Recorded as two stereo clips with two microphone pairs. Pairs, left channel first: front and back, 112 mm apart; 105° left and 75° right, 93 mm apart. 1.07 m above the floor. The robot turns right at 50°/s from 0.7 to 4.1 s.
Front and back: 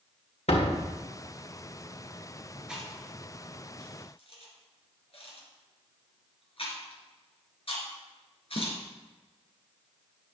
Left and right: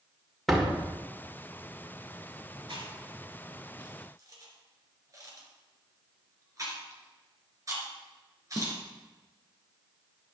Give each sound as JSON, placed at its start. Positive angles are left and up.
{"t": 0.5, "sound": "a door slam", "azimuth_deg": 15, "distance_m": 1.9}
{"t": 2.7, "sound": "chewing", "azimuth_deg": -95, "distance_m": 3.0}